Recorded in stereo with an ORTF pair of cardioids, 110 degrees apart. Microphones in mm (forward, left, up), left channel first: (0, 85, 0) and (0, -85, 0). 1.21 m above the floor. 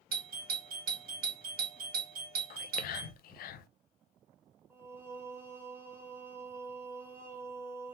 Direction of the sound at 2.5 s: 60° left.